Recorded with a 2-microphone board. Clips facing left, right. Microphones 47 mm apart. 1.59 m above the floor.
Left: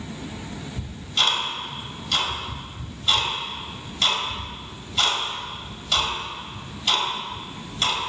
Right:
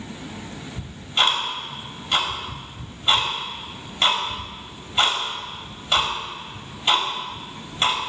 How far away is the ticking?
About 1.9 m.